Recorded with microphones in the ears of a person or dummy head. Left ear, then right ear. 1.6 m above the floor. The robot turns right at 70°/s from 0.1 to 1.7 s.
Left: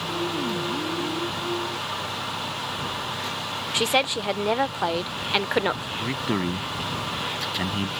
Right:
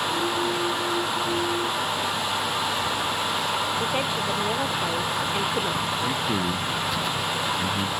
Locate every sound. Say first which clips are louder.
3.7 s a woman speaking: left 2 dB; 45° left (ahead or behind)
6.0 s a man speaking: right 2 dB; 15° left (ahead or behind)